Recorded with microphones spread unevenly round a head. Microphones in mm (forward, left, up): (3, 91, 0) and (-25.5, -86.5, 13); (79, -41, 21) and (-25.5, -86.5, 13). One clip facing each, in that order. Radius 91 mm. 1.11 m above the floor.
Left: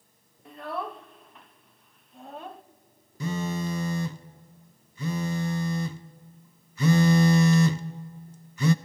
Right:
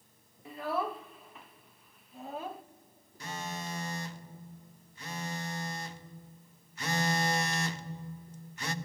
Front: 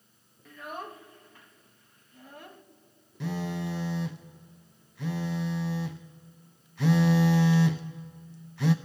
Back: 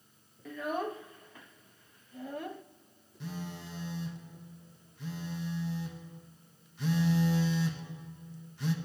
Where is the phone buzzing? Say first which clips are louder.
Left 11 dB, front 9 dB; 75° left, 0.6 m.